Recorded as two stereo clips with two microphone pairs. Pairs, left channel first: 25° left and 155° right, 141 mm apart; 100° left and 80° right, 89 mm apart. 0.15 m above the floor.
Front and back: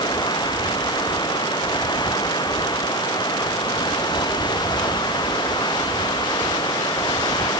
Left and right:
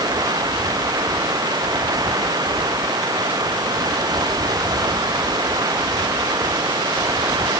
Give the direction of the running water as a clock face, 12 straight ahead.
1 o'clock.